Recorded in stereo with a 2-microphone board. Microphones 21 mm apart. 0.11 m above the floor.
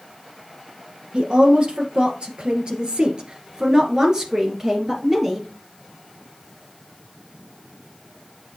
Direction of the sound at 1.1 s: 50° right (ahead or behind).